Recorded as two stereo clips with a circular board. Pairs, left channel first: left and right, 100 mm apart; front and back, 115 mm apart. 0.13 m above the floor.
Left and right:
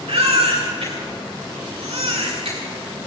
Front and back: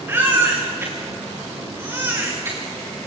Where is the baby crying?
110° right, 6.5 m.